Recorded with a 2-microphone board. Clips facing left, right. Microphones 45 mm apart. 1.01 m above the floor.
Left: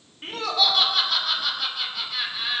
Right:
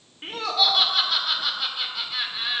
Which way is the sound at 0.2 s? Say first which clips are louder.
Even; 5° right (ahead or behind).